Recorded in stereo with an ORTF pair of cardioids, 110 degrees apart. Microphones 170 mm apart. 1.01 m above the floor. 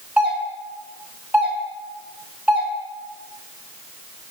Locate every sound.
0.2 s a doorbell: 10° right, 2.0 m